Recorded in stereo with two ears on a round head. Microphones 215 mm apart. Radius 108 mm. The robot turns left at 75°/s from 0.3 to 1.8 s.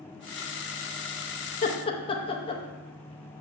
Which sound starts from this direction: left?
Laughter, at 1.6 s.